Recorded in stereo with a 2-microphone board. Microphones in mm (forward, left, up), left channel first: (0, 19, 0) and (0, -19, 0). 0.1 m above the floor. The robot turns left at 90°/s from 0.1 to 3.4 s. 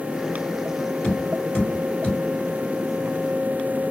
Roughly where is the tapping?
Left.